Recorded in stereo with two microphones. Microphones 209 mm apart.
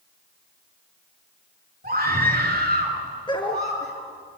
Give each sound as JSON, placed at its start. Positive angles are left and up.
{"t": 1.8, "sound": "a scream", "side_deg": -45, "distance_m": 5.5}
{"t": 3.3, "sound": "a dog barking", "side_deg": 20, "distance_m": 2.5}